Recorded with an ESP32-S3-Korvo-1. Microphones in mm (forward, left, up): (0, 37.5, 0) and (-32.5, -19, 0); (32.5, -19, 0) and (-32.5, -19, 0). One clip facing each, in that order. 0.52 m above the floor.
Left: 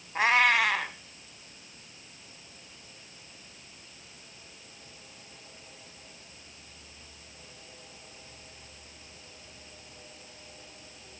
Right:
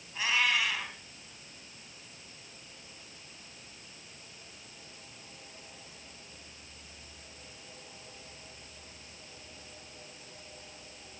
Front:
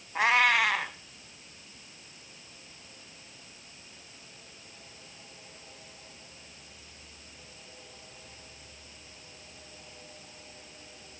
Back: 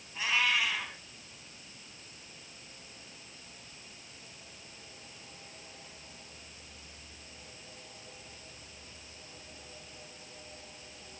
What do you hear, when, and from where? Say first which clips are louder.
0.1 s a cat meowing: left 7 dB, front 7 dB; 25° left, 1.6 m